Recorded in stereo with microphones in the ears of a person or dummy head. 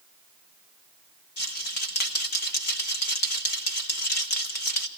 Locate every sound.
1.4 s a rattle: 50° left (ahead or behind), 0.8 m